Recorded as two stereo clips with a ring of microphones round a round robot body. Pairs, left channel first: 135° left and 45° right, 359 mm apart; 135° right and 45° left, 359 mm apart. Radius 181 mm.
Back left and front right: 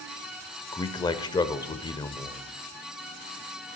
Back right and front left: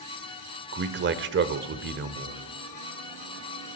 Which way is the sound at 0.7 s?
65° left.